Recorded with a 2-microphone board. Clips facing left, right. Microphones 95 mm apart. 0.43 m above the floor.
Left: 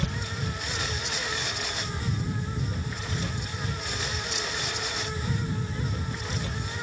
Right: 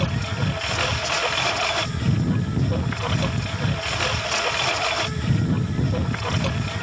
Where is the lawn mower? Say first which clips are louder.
Right 7 dB; 80° right; by 6.8 s 85° right.